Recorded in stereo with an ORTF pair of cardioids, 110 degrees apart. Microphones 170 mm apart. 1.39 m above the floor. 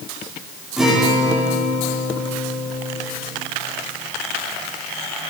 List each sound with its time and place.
0.8 s a guitar: 5° right, 3 m